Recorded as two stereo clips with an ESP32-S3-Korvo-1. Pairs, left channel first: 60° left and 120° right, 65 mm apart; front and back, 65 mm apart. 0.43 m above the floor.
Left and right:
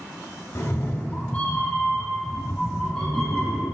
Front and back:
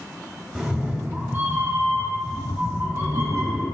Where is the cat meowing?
100° left, 1.1 m; by 3.6 s 145° left, 3 m.